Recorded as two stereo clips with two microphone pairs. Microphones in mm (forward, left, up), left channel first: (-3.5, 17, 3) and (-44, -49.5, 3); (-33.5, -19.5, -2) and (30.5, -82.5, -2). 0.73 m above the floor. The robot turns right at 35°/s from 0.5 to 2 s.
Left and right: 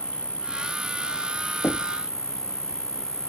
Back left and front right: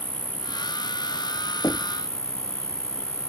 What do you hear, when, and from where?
0.0 s an insect: 45° right; by 3.3 s 10° left
1.6 s knocking: 110° left; by 2.0 s 120° left